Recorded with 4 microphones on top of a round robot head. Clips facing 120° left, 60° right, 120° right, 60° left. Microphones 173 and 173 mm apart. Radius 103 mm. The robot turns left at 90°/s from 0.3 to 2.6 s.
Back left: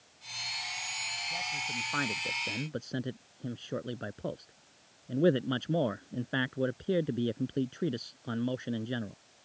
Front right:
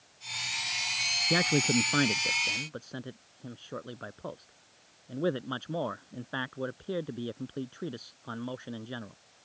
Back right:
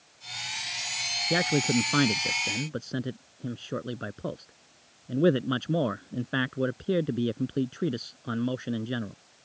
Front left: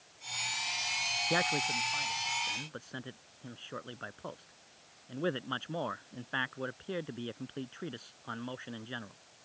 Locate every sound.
1.3 s a man speaking: 50° right; by 9.2 s 170° right